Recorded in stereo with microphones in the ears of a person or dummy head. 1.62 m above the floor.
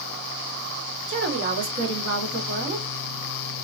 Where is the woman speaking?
70° right (ahead or behind), 1.4 m; by 2.9 s 45° right (ahead or behind), 1.0 m.